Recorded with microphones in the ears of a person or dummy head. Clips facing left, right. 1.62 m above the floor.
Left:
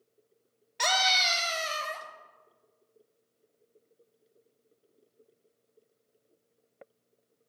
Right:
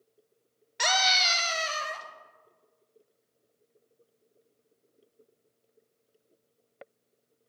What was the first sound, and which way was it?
A scream, 10° right (ahead or behind).